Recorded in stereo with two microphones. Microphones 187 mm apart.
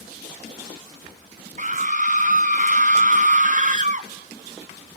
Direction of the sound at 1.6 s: 45° right (ahead or behind).